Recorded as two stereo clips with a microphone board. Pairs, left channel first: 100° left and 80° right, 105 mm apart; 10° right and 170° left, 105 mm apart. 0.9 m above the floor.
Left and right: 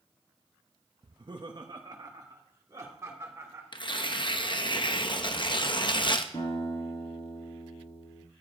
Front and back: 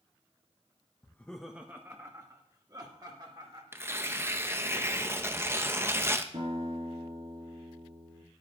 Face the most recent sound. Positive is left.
turn(degrees=135)